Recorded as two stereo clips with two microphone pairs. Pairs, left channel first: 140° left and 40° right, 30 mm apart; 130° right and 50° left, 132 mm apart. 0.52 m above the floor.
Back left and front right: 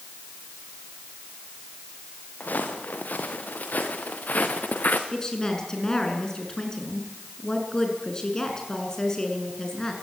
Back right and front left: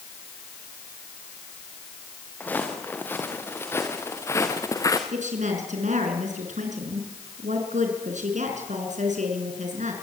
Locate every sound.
2.4 s footsteps: 155° left, 3.5 m; by 5.0 s 170° left, 2.5 m
5.1 s a woman speaking: 70° left, 6 m